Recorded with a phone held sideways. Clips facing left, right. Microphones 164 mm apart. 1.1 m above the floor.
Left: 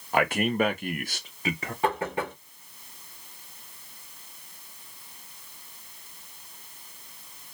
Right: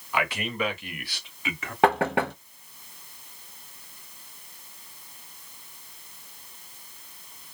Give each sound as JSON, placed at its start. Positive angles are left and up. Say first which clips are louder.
{"t": 0.1, "sound": "a man speaking", "louder": "left 5 dB", "side_deg": 45, "distance_m": 0.7}
{"t": 1.8, "sound": "knocking", "louder": "right 6 dB", "side_deg": -75, "distance_m": 0.7}